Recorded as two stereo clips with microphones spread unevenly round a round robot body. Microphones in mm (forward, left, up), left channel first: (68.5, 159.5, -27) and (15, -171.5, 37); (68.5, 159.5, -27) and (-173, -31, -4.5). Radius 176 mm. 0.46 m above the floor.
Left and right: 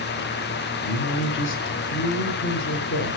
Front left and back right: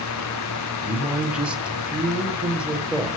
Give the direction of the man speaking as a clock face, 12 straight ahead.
8 o'clock.